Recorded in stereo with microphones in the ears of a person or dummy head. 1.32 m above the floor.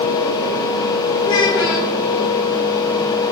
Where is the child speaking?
20° left (ahead or behind), 1.4 m.